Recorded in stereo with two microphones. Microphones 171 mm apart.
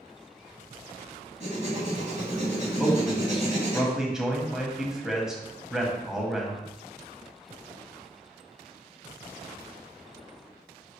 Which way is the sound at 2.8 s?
5° right (ahead or behind).